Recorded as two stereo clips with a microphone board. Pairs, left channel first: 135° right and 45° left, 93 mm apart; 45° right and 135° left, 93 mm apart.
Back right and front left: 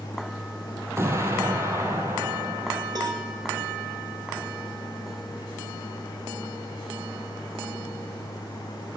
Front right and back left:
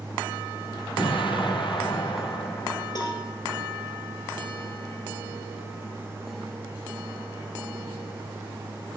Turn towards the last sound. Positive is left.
turn(degrees=-5)